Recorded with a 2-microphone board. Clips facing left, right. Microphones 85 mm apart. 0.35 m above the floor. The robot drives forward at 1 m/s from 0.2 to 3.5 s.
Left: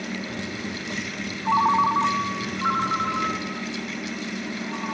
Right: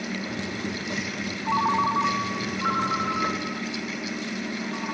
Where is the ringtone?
20° left (ahead or behind), 1.5 m; by 5.0 s 10° left (ahead or behind), 3.5 m.